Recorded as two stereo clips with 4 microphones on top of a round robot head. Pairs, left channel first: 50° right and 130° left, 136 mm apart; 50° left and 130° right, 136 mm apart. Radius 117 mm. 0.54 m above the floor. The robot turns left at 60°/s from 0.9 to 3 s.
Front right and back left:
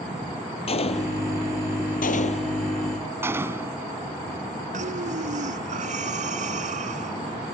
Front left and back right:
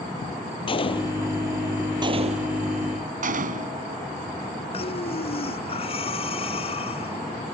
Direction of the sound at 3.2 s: 155° right.